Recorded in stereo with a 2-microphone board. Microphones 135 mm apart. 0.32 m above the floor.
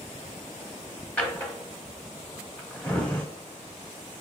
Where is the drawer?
10° left (ahead or behind), 1.0 m.